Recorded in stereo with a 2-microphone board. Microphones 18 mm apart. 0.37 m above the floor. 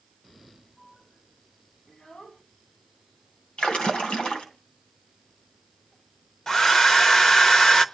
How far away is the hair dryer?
About 0.9 m.